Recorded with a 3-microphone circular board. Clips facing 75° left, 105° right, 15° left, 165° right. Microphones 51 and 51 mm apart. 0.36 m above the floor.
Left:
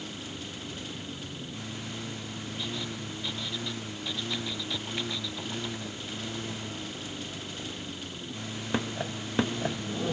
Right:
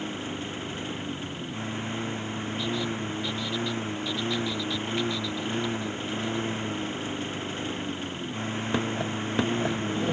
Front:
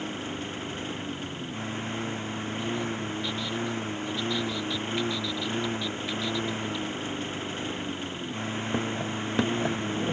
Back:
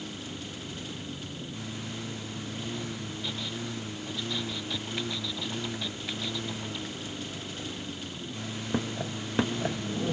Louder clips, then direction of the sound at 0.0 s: Right 6 dB, front 6 dB; 45° right.